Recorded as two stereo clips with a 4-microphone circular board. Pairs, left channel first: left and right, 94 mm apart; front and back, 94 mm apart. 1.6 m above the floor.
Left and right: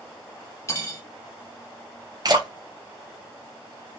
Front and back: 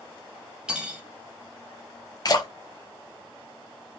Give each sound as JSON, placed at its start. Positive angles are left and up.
{"t": 0.7, "sound": "cutlery clinking", "azimuth_deg": 110, "distance_m": 0.8}
{"t": 2.2, "sound": "a splash", "azimuth_deg": -45, "distance_m": 0.6}